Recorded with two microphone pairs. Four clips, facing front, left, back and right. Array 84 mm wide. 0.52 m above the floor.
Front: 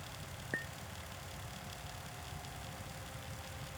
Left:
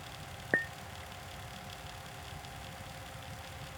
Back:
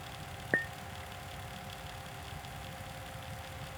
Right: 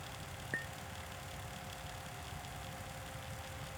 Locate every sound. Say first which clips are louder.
0.5 s a clink: left 11 dB, back 9 dB; 125° left